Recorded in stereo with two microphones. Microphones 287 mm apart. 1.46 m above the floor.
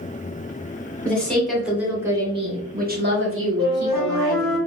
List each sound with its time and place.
1.1 s a woman speaking: 5° left (ahead or behind), 1.4 m; by 4.6 s 85° right, 1.0 m
3.6 s a flute: 5° left (ahead or behind), 1.4 m